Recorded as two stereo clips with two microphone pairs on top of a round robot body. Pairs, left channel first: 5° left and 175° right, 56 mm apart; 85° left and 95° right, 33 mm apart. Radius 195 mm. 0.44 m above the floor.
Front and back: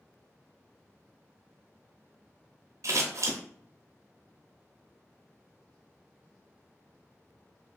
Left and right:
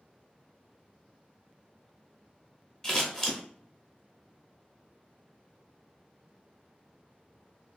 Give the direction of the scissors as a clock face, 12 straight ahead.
7 o'clock.